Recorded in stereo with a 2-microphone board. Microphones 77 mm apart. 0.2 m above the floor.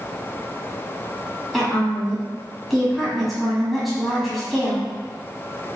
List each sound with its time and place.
1.5 s a woman speaking: centre (ahead or behind), 1.2 m